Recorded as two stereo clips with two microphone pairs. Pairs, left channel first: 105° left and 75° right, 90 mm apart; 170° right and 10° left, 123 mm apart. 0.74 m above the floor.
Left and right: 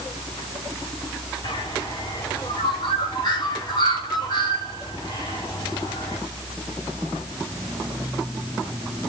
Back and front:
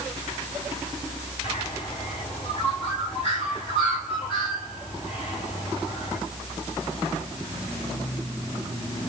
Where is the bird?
150° left, 4.5 m.